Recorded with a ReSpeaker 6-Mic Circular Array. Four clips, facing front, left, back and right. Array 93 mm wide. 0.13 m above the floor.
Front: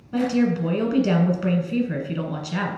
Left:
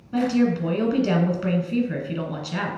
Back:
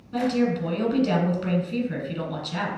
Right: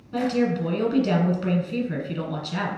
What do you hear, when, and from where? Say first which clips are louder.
0.1 s a woman speaking: left 2 dB, front 2 dB; 30° left, 1.0 m